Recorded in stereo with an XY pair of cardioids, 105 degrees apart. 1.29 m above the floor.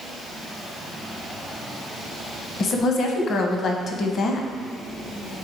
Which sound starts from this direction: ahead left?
A woman speaking, at 2.6 s.